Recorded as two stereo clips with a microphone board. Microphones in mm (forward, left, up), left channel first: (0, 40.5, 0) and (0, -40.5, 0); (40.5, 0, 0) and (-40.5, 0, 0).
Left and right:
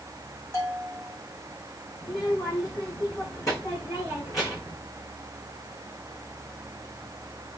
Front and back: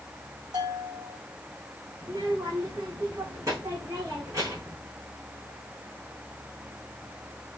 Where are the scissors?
No scissors in this recording.